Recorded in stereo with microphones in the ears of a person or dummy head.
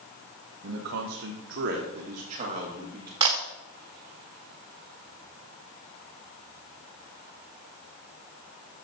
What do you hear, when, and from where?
0.6 s a man speaking: 75° right (ahead or behind), 1.1 m; by 3.1 s 20° right (ahead or behind), 1.7 m
3.2 s a camera shutter: 20° right (ahead or behind), 1.1 m